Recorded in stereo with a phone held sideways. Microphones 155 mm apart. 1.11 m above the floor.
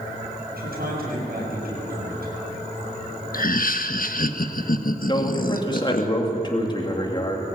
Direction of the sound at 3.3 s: 65° left (ahead or behind).